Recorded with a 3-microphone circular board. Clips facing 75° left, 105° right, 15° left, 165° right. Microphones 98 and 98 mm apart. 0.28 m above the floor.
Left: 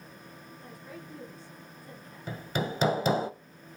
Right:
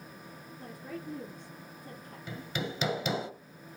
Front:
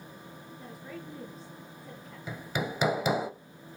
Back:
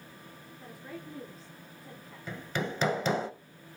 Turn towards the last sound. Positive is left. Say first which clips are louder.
# left 4 dB, front 1 dB
turn(degrees=90)